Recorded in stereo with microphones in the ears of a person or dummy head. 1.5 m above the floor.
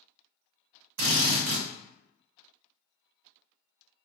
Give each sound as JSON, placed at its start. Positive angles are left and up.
{"t": 1.0, "sound": "a drill", "side_deg": -65, "distance_m": 0.7}